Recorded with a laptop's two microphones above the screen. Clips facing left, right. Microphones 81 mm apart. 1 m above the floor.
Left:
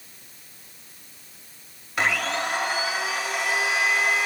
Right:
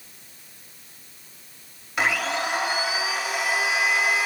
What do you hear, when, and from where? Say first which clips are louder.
2.0 s a blender: even; centre (ahead or behind), 3 m